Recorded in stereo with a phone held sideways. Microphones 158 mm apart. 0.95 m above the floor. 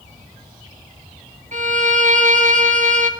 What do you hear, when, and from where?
1.5 s a violin: 55° right (ahead or behind), 1.5 m